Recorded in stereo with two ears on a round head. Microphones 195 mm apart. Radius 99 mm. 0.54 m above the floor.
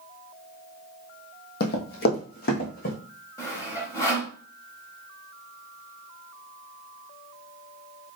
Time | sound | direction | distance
1.6 | running footsteps | 50° left (ahead or behind) | 1.4 m
3.4 | sawing | 15° left (ahead or behind) | 1.1 m